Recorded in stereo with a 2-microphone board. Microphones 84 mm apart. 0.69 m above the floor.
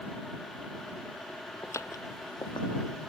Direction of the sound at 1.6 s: 30° left (ahead or behind).